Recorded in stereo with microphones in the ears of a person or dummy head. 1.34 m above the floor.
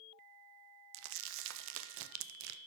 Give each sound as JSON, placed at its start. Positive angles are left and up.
{"t": 0.9, "sound": "crumpling", "side_deg": -65, "distance_m": 0.5}